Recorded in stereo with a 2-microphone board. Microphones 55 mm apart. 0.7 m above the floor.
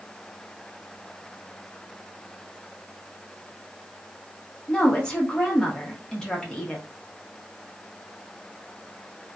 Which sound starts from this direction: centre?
A woman speaking, at 4.7 s.